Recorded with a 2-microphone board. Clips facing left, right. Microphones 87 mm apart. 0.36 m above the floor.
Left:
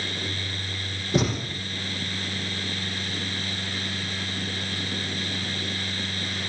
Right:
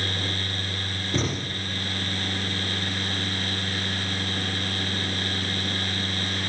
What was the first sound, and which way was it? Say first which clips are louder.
A thud: left 4 dB; 10° left (ahead or behind).